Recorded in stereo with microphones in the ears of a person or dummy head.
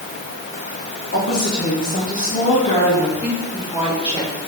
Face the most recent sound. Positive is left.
turn(degrees=20)  # may be behind; listen again after turning